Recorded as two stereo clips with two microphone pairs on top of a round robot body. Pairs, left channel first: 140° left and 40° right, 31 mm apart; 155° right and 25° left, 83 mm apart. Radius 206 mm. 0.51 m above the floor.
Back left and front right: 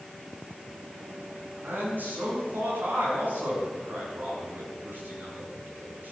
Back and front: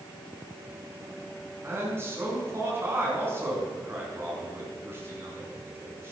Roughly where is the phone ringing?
No phone ringing in this recording.